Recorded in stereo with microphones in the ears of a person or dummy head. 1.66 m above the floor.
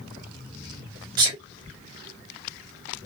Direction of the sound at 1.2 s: 30° right (ahead or behind).